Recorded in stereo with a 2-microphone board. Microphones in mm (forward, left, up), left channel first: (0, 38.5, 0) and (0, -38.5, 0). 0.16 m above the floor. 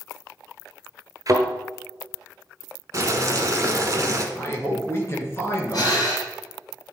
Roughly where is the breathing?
Left.